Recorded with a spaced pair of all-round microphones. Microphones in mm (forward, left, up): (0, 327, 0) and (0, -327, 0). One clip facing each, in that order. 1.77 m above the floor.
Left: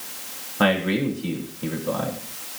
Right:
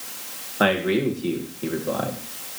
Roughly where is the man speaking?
Left.